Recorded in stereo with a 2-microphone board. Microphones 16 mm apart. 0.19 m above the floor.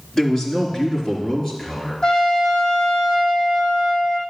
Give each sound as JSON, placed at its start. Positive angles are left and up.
{"t": 0.1, "sound": "a man speaking", "side_deg": 30, "distance_m": 2.0}
{"t": 2.0, "sound": "a trumpet", "side_deg": 45, "distance_m": 1.7}